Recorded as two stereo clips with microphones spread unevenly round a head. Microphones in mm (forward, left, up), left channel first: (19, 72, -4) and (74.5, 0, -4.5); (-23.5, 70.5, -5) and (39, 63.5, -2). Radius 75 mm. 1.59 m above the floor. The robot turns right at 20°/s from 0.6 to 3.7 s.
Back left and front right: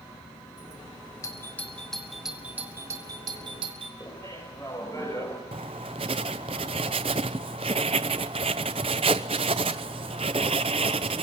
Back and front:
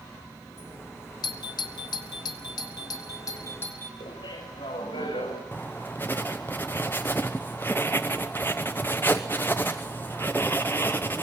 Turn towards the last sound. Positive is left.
turn(degrees=-110)